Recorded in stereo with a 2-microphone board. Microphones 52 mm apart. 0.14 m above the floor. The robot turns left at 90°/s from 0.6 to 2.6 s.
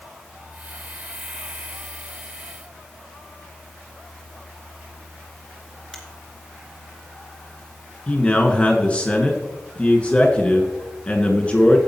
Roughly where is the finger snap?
Centre.